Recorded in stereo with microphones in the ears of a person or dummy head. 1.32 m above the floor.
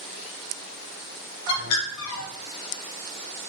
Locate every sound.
1.5 s a bird: 80° left, 0.8 m